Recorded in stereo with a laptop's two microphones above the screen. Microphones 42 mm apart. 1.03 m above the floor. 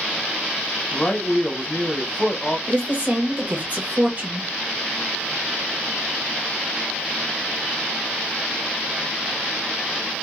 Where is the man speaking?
20° left (ahead or behind), 0.9 m.